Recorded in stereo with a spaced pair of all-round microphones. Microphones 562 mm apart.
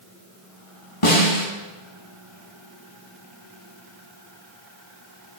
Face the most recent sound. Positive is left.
turn(degrees=65)  # may be behind; listen again after turning